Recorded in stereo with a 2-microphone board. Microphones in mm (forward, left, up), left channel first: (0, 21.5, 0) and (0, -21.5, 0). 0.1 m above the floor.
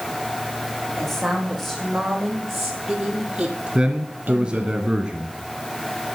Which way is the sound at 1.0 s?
5° left (ahead or behind).